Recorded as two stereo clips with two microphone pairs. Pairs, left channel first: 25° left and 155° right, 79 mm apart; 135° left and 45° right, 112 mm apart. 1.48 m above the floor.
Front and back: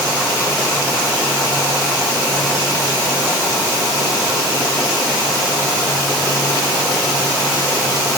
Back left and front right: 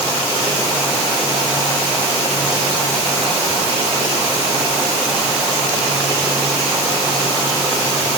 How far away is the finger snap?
I don't hear a finger snap.